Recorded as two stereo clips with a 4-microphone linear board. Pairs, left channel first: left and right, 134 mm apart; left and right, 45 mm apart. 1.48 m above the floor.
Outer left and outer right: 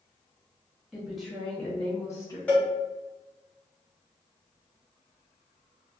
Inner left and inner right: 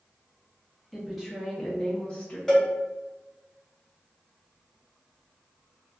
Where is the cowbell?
10° left (ahead or behind), 1.7 m.